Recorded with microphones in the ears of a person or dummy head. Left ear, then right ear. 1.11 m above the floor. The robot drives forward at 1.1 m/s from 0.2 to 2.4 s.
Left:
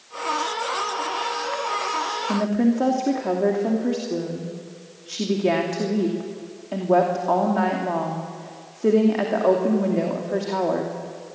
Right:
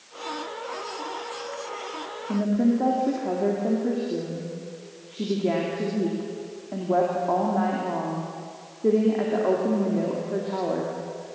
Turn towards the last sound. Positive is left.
turn(degrees=80)